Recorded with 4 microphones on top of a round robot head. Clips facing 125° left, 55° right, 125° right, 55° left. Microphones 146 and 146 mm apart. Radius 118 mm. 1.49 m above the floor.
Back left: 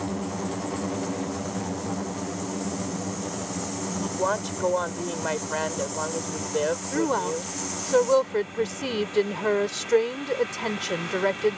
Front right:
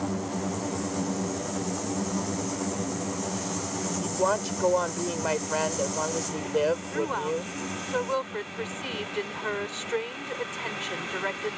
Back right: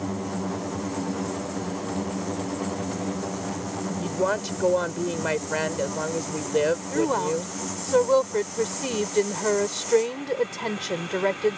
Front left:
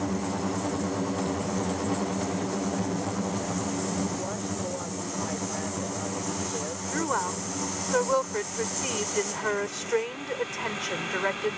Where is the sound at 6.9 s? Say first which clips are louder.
Back left 3 dB, back right 6 dB; 175° left.